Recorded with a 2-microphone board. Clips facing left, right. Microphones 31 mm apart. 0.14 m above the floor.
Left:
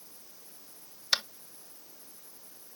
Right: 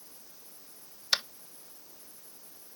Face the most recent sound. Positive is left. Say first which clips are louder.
# even
turn(degrees=5)  # may be behind; listen again after turning